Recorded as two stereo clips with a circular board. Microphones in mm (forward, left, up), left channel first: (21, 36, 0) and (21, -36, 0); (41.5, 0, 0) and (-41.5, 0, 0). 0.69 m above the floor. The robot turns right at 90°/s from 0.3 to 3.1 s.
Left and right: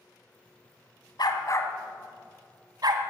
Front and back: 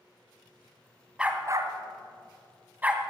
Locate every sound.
1.2 s a dog barking: 100° left, 1.4 m; by 3.1 s 90° right, 1.4 m